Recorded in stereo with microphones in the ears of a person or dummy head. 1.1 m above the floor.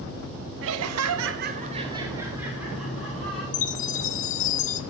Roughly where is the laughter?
Right.